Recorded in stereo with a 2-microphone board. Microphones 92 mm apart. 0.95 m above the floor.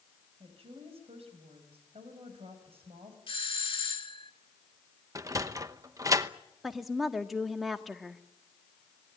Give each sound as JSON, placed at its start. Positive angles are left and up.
{"t": 0.4, "sound": "a woman speaking", "side_deg": -85, "distance_m": 5.0}
{"t": 3.3, "sound": "a doorbell", "side_deg": 65, "distance_m": 1.9}
{"t": 5.2, "sound": "a sliding door", "side_deg": -35, "distance_m": 1.0}
{"t": 6.6, "sound": "a woman speaking", "side_deg": 0, "distance_m": 1.4}